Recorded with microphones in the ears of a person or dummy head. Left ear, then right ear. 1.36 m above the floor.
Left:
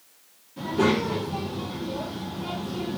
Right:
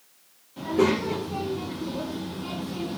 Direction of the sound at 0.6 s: 30° right (ahead or behind).